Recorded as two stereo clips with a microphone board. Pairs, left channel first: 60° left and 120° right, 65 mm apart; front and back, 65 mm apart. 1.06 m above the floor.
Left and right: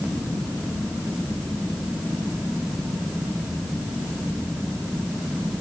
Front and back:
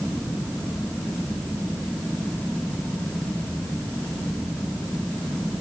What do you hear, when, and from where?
Only background noise.